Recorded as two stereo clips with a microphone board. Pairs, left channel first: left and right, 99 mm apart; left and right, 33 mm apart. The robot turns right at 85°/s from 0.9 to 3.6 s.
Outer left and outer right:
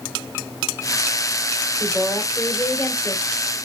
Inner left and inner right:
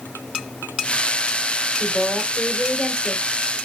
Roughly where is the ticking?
No ticking in this recording.